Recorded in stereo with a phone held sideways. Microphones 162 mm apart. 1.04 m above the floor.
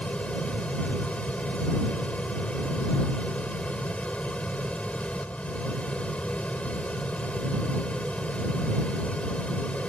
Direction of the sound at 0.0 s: 5° left (ahead or behind).